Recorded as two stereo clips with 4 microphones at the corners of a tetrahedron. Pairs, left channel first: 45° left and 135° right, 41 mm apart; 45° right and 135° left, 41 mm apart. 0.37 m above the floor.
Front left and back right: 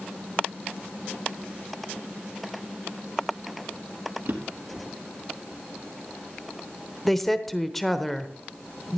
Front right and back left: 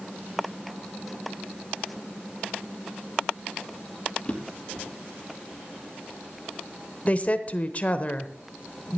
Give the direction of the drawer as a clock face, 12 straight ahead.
4 o'clock.